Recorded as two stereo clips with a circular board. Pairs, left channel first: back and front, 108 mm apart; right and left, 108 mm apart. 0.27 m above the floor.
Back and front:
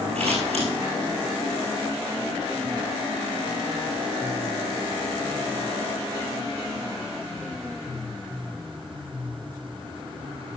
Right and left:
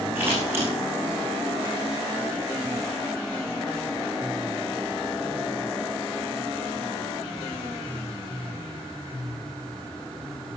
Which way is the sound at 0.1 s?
20° left.